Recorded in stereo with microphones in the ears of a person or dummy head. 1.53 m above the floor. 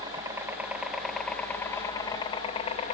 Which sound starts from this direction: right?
A helicopter, at 0.0 s.